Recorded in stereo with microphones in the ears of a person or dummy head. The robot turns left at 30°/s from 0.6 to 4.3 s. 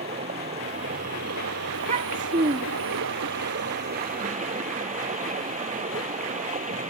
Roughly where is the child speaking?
Behind right.